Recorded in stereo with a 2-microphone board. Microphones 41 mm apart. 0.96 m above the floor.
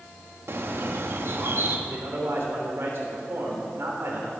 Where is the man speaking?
70° right (ahead or behind), 3.5 m.